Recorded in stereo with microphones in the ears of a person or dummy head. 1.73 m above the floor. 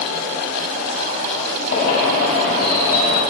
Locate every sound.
1.7 s a bird: 55° left (ahead or behind), 7.5 m